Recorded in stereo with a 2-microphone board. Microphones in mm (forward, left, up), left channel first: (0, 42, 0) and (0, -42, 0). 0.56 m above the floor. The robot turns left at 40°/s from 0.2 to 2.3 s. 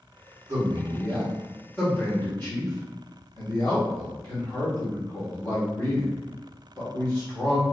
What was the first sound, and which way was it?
A man speaking, 30° right (ahead or behind).